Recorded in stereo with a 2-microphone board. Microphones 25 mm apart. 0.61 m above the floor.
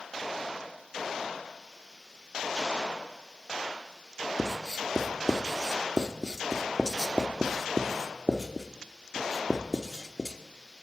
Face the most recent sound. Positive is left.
turn(degrees=-25)  # may be behind; listen again after turning